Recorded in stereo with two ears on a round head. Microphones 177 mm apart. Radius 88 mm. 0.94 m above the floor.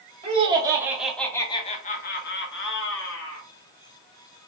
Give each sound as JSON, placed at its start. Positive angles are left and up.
{"t": 0.2, "sound": "laughter", "side_deg": -30, "distance_m": 1.3}